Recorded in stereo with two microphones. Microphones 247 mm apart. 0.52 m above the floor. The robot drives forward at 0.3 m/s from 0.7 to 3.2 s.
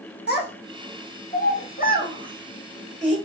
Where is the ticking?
No ticking in this recording.